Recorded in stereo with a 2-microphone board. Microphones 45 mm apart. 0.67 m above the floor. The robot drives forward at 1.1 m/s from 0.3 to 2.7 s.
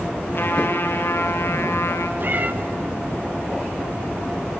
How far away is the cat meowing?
About 1.0 m.